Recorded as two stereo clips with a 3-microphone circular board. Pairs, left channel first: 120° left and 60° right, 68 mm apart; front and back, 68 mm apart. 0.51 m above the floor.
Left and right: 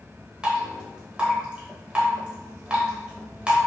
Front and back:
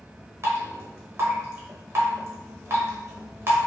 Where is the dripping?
135° right, 1.0 m.